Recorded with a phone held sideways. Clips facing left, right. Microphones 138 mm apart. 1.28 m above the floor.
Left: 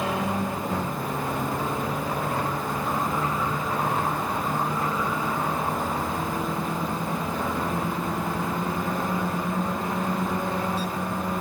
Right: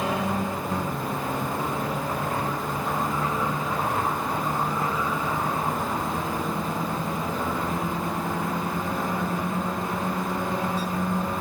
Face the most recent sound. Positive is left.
No sound to turn to.